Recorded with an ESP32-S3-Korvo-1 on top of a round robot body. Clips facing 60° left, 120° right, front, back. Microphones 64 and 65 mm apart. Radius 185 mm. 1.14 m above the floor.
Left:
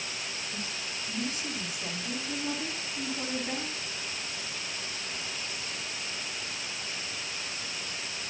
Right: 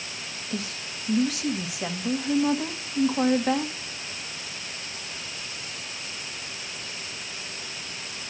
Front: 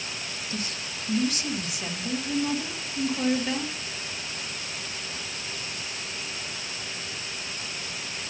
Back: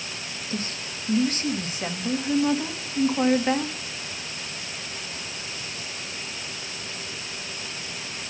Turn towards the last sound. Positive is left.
turn(degrees=-120)